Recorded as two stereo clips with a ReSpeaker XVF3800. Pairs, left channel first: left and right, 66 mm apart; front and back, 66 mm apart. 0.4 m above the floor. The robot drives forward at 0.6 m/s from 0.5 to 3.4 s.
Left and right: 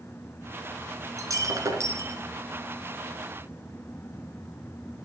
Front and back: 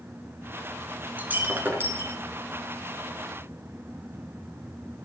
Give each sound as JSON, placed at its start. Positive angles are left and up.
{"t": 1.2, "sound": "breaking glass", "azimuth_deg": -115, "distance_m": 1.8}